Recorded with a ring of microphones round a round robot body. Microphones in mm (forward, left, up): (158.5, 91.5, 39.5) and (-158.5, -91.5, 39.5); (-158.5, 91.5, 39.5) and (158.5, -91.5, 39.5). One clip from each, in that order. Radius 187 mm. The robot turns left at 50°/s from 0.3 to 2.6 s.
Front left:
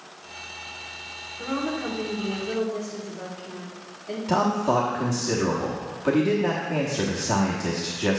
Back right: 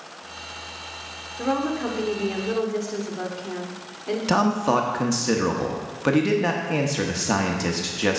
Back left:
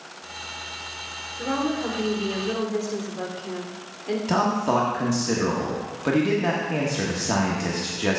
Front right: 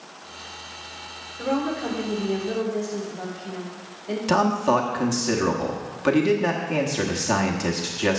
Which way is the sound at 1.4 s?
110° right.